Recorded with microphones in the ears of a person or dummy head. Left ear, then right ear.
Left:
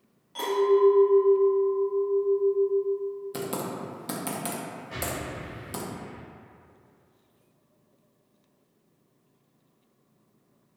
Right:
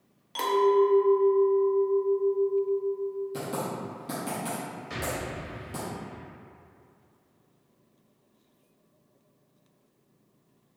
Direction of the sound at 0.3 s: 25° right (ahead or behind).